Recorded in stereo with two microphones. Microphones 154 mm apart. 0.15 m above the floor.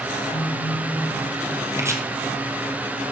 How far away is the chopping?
About 1.7 m.